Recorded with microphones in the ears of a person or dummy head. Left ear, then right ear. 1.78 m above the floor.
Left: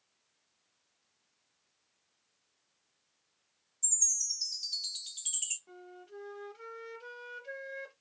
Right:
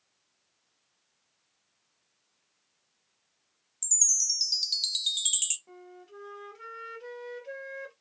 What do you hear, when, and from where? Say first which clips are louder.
3.8 s a chime: right 6 dB; 35° right (ahead or behind), 0.6 m
5.7 s a flute: right 1 dB; 10° left (ahead or behind), 0.9 m